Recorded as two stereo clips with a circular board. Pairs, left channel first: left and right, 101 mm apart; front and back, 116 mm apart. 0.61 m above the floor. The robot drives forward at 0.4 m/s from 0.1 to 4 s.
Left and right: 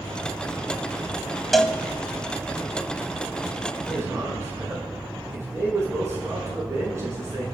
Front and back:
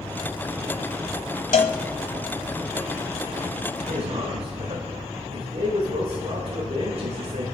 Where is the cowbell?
Straight ahead, 1.1 m.